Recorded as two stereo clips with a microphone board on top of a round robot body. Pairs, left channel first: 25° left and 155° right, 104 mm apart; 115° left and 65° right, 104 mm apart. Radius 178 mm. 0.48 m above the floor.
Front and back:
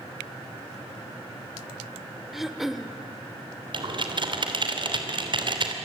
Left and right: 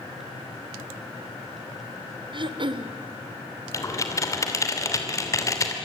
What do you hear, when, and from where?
2.3 s throat clearing: 70° right, 1.5 m
3.7 s typing on a keyboard: 170° left, 3 m